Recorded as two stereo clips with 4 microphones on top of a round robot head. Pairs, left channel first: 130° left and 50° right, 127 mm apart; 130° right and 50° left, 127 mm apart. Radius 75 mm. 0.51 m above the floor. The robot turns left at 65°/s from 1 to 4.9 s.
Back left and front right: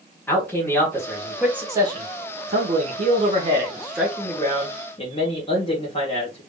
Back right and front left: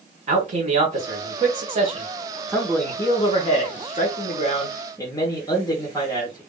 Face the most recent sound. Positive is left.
turn(degrees=170)